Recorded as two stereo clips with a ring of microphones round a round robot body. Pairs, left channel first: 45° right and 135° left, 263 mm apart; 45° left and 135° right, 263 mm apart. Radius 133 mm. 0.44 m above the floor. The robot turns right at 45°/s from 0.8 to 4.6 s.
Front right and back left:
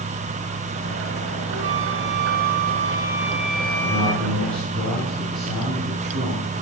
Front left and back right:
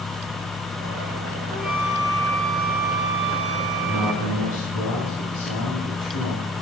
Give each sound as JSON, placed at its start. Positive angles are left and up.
{"t": 1.5, "sound": "a flute", "azimuth_deg": 135, "distance_m": 1.1}
{"t": 3.8, "sound": "a man speaking", "azimuth_deg": 50, "distance_m": 4.5}